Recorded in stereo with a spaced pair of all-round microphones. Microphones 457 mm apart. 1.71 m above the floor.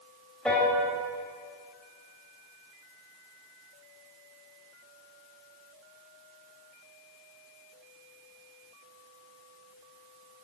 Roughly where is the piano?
Centre.